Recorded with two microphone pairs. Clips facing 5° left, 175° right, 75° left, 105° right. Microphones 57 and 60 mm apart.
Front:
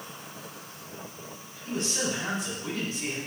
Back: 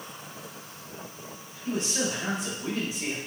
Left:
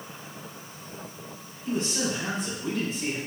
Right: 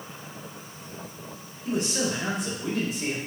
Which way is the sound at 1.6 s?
105° right.